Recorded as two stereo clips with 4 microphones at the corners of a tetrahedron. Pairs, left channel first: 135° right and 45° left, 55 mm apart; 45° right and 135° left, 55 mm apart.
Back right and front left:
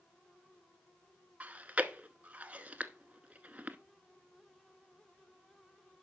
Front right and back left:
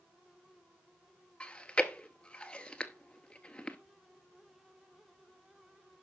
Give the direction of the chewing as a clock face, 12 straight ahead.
12 o'clock.